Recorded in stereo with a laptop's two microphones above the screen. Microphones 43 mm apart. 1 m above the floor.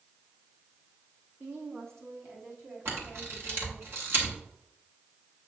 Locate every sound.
1.4 s a woman speaking: 55° right (ahead or behind), 1.6 m; by 3.9 s 80° right, 3.5 m
2.9 s a camera shutter: 60° right (ahead or behind), 1.5 m